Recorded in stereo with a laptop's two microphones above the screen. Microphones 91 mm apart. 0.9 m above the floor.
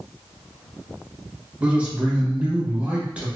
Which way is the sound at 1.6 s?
15° right (ahead or behind).